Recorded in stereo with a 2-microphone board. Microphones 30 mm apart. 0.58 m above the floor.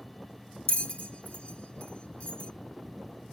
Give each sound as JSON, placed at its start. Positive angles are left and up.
{"t": 0.7, "sound": "a bell", "side_deg": 45, "distance_m": 0.6}